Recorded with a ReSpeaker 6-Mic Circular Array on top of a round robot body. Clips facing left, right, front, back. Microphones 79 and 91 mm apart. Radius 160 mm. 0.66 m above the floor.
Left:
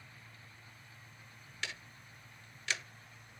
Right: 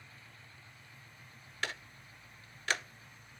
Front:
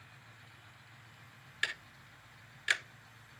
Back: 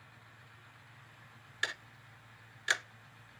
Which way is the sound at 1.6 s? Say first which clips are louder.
Right 5 dB, even; 120° right.